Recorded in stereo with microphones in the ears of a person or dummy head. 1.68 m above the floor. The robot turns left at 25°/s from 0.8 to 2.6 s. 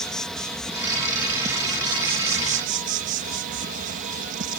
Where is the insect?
5° left; by 4.6 s 40° right.